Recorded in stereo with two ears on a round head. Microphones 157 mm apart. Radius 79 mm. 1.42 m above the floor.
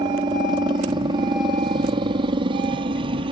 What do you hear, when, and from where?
0.0 s a helicopter: 25° right (ahead or behind); by 3.3 s 30° right (ahead or behind)